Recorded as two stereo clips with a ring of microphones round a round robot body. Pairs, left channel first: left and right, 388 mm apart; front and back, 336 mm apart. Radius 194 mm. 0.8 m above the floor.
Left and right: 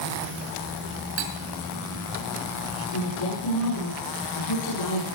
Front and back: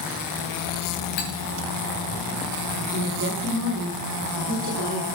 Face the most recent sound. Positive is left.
turn(degrees=135)